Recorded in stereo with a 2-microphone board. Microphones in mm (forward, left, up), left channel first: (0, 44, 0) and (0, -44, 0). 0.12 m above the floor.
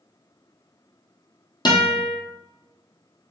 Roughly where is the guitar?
Left.